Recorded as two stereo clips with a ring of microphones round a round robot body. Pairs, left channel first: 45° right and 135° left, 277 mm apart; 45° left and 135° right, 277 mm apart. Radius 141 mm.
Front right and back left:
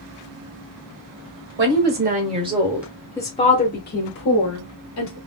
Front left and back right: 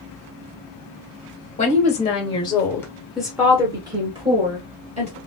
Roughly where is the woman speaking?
Left.